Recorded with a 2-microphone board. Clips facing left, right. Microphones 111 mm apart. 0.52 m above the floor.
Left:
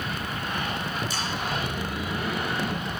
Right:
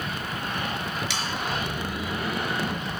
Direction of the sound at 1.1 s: 80° right.